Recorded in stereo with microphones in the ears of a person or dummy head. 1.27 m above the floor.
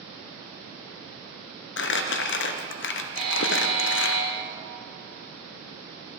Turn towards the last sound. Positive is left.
turn(degrees=-40)  # may be behind; listen again after turning